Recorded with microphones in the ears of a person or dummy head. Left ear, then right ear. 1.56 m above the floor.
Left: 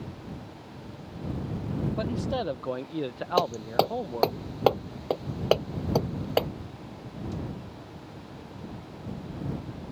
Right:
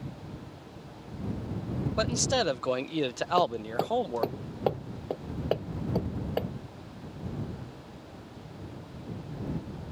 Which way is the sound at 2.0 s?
55° right (ahead or behind).